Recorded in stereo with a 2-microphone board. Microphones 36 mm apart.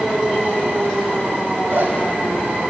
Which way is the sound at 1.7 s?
70° right (ahead or behind).